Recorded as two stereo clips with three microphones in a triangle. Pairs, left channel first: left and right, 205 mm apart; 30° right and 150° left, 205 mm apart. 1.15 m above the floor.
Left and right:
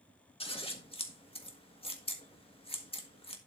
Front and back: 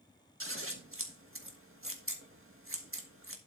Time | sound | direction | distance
0.4 | scissors | 155° left | 1.6 m